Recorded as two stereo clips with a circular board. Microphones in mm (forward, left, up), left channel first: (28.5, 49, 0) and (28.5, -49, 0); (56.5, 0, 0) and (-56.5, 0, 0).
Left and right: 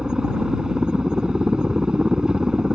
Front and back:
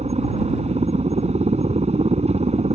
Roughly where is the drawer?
No drawer in this recording.